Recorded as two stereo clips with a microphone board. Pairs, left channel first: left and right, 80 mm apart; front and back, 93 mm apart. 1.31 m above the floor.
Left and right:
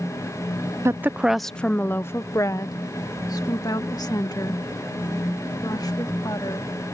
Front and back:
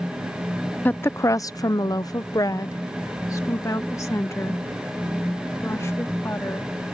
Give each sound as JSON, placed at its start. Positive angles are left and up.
{"t": 0.8, "sound": "a woman speaking", "azimuth_deg": -60}